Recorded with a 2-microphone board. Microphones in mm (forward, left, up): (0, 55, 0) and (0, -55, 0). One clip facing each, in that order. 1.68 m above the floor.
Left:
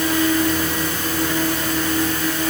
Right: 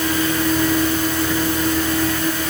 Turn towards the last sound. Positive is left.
No sound to turn to.